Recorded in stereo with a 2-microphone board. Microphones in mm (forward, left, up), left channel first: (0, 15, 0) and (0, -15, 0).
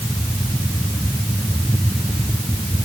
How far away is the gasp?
No gasp in this recording.